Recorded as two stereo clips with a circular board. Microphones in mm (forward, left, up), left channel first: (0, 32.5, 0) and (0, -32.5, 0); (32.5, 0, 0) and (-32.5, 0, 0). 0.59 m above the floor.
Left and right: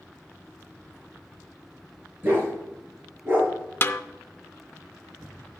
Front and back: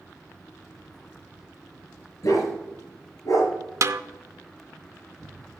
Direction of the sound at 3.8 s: 145° left.